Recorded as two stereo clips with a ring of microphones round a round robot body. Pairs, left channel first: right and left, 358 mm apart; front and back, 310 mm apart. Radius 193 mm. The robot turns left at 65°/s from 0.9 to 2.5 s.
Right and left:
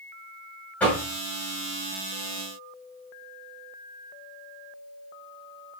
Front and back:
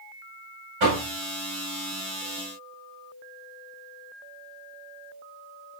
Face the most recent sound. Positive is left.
turn(degrees=80)